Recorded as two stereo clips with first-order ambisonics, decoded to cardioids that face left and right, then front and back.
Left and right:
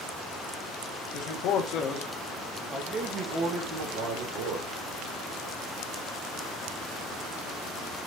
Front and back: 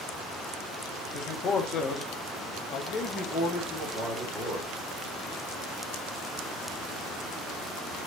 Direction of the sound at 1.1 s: 60° left.